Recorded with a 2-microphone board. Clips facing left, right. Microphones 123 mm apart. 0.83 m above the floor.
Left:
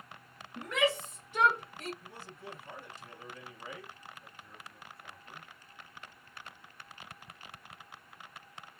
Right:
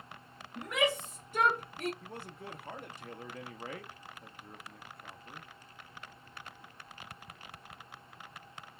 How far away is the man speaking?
About 0.8 m.